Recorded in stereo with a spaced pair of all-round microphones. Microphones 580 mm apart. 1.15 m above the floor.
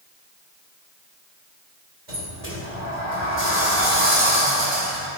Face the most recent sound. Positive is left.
turn(degrees=-65)  # may be behind; listen again after turning